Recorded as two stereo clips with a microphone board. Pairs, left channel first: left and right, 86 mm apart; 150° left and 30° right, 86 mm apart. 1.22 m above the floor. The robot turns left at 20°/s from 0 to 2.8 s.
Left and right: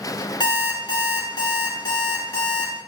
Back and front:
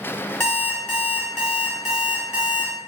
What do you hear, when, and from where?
0.4 s an alarm clock: 85° left, 1.0 m; by 2.7 s 40° left, 1.0 m